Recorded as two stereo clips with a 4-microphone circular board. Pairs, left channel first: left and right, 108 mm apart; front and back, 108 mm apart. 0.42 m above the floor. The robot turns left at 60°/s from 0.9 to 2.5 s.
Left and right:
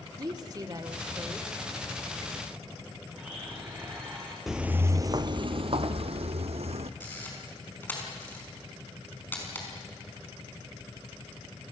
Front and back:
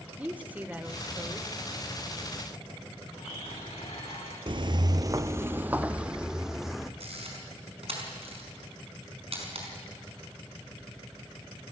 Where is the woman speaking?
110° right, 1.4 m; by 1.5 s 145° right, 1.4 m.